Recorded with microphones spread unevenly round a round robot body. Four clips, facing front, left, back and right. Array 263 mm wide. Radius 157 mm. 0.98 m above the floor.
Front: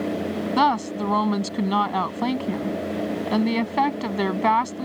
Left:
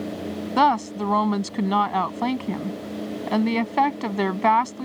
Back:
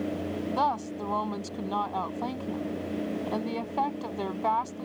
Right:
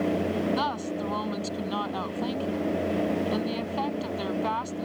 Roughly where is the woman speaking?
Ahead left.